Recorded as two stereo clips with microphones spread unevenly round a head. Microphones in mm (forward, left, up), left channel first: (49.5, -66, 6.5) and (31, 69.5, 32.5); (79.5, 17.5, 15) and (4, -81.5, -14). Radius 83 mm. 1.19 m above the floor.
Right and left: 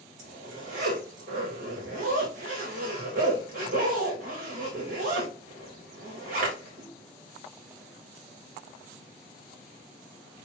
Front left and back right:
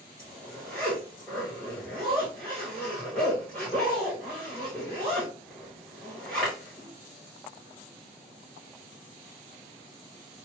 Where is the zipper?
140° left, 1.5 m.